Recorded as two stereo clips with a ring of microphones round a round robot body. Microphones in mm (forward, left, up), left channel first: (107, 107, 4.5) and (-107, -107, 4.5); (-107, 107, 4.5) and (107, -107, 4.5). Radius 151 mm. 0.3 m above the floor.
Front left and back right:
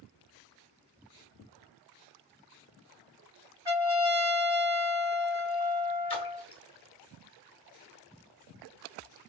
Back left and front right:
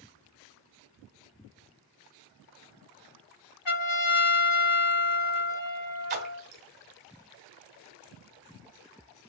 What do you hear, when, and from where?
3.6 s a trumpet: 145° left, 2.5 m
6.1 s a splash: 15° right, 1.1 m